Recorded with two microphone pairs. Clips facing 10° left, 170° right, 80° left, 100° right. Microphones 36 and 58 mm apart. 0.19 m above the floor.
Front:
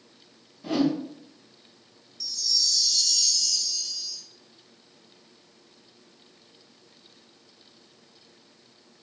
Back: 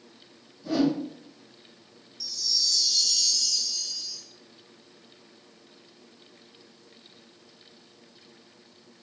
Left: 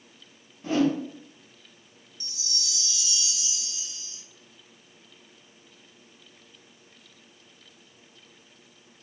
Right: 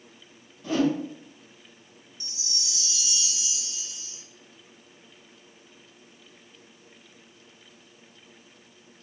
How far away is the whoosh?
About 2.5 m.